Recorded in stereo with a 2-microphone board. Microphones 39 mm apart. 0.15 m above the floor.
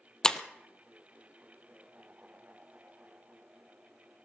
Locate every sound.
0.2 s breaking glass: 20° left (ahead or behind), 0.9 m